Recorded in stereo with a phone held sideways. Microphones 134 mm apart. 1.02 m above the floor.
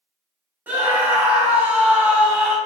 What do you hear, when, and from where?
0.7 s a scream: 15° right (ahead or behind), 0.8 m